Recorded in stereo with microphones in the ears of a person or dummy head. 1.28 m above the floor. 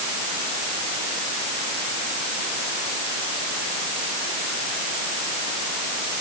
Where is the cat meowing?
No cat meowing in this recording.